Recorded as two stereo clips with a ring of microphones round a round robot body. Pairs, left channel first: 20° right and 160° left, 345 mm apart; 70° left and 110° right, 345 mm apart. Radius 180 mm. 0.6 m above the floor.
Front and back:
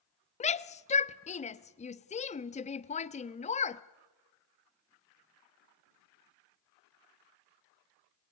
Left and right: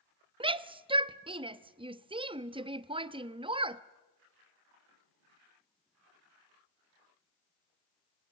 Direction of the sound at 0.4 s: 60° right.